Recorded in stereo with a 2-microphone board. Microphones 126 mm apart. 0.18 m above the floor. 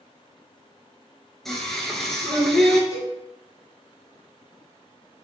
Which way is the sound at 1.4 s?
Centre (ahead or behind).